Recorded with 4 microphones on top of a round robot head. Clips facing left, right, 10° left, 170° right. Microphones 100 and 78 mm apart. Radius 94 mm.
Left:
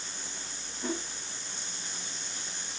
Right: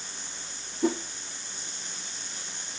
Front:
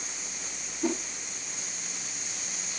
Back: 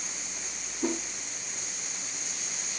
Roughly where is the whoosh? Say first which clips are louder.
Right 8 dB, front 1 dB; right.